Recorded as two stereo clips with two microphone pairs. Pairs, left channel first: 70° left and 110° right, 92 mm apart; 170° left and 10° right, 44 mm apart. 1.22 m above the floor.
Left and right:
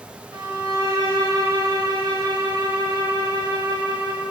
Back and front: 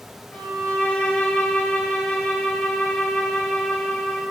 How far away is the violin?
About 3 m.